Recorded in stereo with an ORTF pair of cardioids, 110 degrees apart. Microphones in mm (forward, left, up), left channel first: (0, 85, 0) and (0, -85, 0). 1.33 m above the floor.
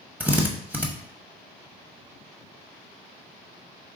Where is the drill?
10° right, 0.9 m.